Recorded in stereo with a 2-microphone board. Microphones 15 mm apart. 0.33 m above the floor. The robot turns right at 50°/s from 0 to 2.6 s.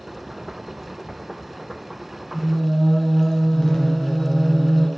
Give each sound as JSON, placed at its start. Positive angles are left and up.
{"t": 2.3, "sound": "singing", "side_deg": 35, "distance_m": 2.0}